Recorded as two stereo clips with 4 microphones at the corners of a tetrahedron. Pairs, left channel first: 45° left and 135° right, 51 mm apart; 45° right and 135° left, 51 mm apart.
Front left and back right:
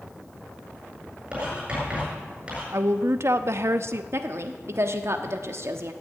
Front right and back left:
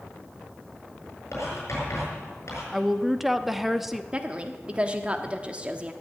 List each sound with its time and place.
1.3 s writing: 70° right, 8 m
2.7 s a woman speaking: 140° right, 0.8 m
4.1 s a woman speaking: 160° right, 1.1 m